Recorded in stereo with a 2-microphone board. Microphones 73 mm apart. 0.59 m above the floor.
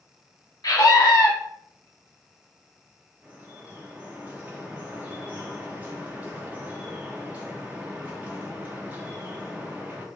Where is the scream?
60° left (ahead or behind), 1.2 m.